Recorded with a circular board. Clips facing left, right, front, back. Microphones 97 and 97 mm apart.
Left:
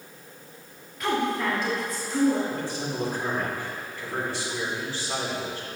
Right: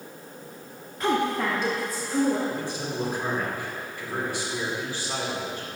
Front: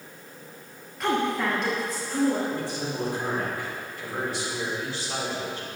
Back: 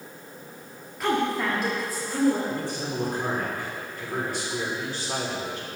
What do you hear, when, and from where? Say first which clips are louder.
1.0 s a woman speaking: right 1 dB, even; 90° right, 0.8 m; by 2.4 s 100° right, 1.6 m
2.5 s a man speaking: even, even; 160° right, 2.0 m